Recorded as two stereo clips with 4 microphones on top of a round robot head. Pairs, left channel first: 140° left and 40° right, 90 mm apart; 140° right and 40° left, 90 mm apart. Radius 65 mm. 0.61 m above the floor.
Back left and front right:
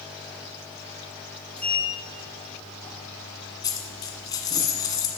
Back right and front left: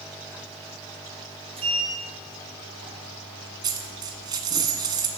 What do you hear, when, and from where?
1.6 s a sliding door: 60° left, 3.5 m
3.6 s a dropped coin: 90° left, 1.4 m